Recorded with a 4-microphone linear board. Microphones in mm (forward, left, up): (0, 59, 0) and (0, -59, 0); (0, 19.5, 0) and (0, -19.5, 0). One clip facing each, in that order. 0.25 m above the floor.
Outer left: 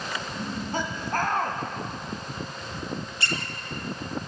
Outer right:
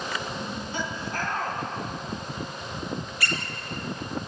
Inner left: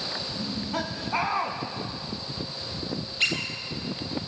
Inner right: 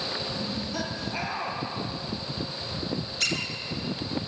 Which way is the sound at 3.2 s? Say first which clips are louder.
Even, inner left 4 dB; 25° left (ahead or behind).